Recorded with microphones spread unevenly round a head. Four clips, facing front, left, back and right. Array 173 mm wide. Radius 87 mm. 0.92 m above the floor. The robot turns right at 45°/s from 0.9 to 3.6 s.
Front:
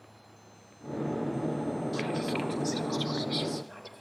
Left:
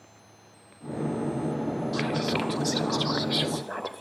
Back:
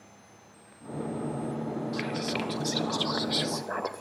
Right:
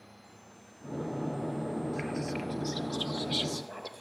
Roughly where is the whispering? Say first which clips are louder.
Left 7 dB, front 1 dB; left.